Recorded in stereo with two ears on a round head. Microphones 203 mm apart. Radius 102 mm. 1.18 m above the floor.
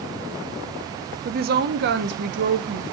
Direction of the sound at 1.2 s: 40° right (ahead or behind).